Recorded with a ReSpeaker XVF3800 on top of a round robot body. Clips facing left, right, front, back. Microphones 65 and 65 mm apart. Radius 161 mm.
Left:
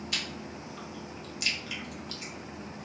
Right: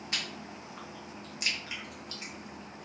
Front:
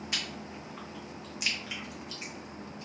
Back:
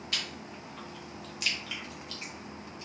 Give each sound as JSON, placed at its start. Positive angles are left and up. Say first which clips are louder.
{"t": 0.1, "sound": "chewing", "louder": "right 2 dB, back 1 dB", "azimuth_deg": -60, "distance_m": 1.3}